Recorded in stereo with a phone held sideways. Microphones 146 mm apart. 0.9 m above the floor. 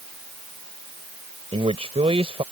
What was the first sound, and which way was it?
A man speaking, 45° right (ahead or behind).